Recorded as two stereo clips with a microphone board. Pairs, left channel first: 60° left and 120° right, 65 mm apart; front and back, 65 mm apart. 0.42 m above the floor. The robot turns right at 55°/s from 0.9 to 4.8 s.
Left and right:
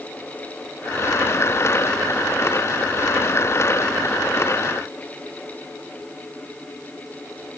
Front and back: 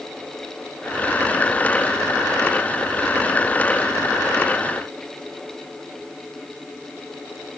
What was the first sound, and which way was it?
Only background noise.